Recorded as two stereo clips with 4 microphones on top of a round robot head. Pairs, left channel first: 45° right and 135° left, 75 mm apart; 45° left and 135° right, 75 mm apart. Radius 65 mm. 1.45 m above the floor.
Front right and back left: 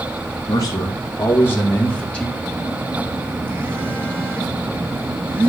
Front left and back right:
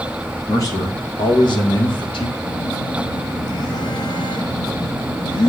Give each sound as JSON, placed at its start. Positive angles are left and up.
{"t": 0.5, "sound": "a man speaking", "azimuth_deg": -5, "distance_m": 1.5}
{"t": 2.4, "sound": "a phone buzzing", "azimuth_deg": 70, "distance_m": 1.9}